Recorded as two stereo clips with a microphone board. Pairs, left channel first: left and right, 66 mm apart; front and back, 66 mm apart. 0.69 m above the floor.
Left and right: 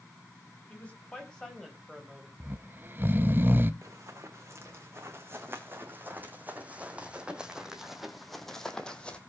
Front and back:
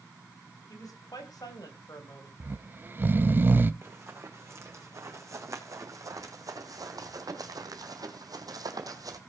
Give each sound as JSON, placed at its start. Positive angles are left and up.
{"t": 0.7, "sound": "a woman speaking", "azimuth_deg": 25, "distance_m": 5.0}
{"t": 2.4, "sound": "snoring", "azimuth_deg": -130, "distance_m": 0.6}
{"t": 3.8, "sound": "running footsteps", "azimuth_deg": -130, "distance_m": 3.5}